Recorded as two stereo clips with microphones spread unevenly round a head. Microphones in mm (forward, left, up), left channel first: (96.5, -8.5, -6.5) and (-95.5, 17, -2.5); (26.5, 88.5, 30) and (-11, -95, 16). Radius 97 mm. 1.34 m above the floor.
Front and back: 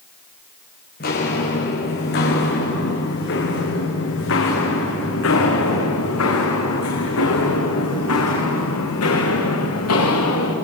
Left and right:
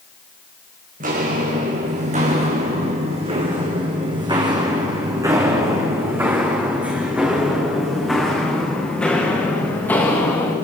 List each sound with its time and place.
1.0 s footsteps: 50° right, 5.5 m; by 10.6 s straight ahead, 6 m